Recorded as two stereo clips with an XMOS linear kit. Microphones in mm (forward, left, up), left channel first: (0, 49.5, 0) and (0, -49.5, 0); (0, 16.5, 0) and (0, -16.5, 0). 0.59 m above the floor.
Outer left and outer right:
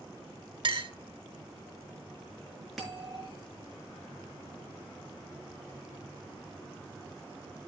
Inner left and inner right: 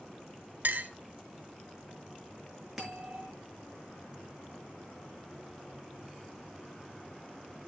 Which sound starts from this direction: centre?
A bell, at 2.8 s.